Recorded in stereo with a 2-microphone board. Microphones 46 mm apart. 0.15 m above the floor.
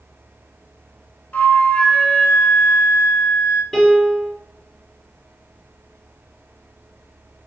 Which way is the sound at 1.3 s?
40° left (ahead or behind).